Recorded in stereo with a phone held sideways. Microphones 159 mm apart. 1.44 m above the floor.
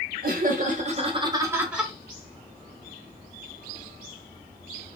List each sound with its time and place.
0.2 s laughter: 60° right (ahead or behind), 1.0 m; by 1.9 s centre (ahead or behind), 0.8 m